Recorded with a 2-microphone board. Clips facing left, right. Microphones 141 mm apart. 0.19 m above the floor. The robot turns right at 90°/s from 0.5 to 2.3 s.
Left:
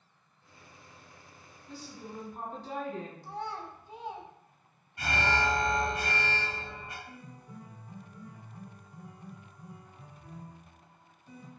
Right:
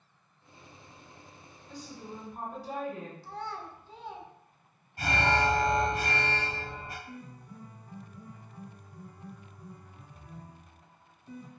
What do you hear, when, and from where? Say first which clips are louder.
1.7 s a woman speaking: right 1 dB; 10° left (ahead or behind), 1.5 m; by 3.3 s 10° right (ahead or behind), 1.5 m
3.2 s a child speaking: left 1 dB; 15° left (ahead or behind), 0.6 m
5.0 s an alarm: right 3 dB; 30° right (ahead or behind), 1.4 m
7.0 s a piano: right 3 dB; centre (ahead or behind), 1.9 m